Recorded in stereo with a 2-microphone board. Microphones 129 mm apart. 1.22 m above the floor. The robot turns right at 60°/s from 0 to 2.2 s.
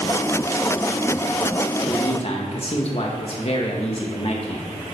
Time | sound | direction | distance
1.8 | a man speaking | 25° left (ahead or behind) | 1.5 m